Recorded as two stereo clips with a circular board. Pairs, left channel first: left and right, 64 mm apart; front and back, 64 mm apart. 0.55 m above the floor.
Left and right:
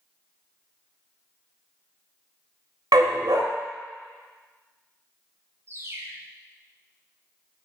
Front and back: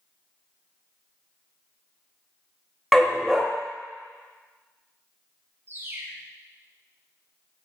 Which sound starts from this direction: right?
A dog barking, at 2.9 s.